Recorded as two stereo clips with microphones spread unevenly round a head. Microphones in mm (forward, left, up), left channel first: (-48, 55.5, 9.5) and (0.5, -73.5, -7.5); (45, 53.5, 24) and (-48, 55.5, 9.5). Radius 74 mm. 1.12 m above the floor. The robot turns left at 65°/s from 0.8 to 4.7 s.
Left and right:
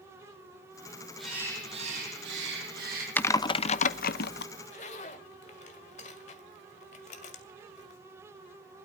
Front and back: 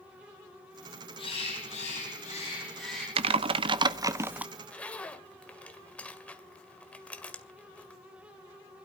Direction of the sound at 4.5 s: 80° left.